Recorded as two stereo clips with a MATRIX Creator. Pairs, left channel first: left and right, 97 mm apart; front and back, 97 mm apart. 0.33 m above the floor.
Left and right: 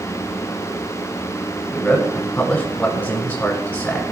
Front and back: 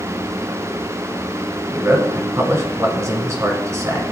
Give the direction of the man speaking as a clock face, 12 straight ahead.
7 o'clock.